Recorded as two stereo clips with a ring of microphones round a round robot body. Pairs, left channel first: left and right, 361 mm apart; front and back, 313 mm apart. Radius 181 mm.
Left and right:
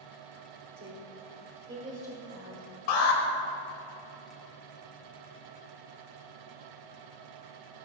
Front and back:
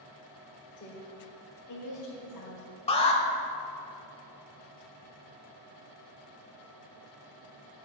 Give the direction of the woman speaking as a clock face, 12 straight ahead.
2 o'clock.